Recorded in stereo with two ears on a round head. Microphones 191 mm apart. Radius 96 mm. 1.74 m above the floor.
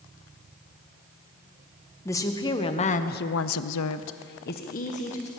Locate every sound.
2.0 s a woman speaking: 15° left (ahead or behind), 2 m; by 5.3 s 30° left (ahead or behind), 2 m